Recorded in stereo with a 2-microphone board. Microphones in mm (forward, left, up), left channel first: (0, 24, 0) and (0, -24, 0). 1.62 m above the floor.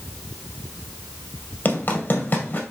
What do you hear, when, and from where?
1.6 s running footsteps: 40° left (ahead or behind), 2.5 m